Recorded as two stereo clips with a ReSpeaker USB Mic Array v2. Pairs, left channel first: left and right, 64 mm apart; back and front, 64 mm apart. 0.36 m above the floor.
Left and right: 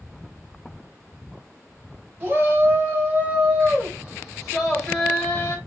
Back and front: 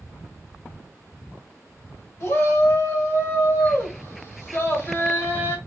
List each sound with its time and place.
2.2 s a shout: 140° right, 3 m; by 5.6 s 150° left, 1.8 m